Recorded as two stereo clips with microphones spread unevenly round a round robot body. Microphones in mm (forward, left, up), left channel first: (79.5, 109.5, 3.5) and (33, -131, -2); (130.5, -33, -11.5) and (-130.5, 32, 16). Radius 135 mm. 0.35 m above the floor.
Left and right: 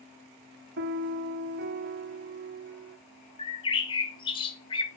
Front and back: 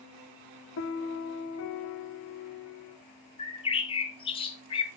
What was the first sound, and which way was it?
A piano, 55° right.